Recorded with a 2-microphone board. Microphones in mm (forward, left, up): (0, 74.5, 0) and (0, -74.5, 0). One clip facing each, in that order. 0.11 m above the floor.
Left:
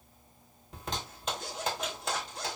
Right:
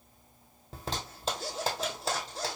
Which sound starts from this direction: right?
A zipper, at 0.7 s.